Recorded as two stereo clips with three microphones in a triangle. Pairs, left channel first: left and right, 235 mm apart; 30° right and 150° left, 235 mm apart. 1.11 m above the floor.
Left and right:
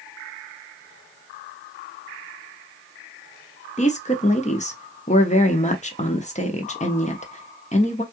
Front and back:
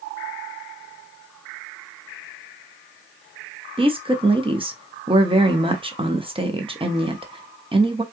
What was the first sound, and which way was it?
A woman speaking, 110° left.